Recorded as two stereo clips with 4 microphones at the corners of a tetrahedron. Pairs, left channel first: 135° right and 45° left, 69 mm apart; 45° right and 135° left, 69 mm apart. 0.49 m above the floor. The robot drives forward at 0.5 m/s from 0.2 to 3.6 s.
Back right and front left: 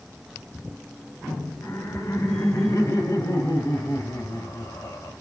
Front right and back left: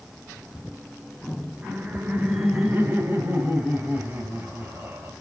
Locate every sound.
1.6 s laughter: 160° right, 1.6 m; by 5.1 s 170° right, 2.5 m